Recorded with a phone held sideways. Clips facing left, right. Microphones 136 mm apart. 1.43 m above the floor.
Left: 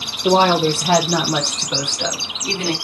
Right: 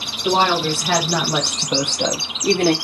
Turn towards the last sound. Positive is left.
turn(degrees=-55)  # may be behind; listen again after turning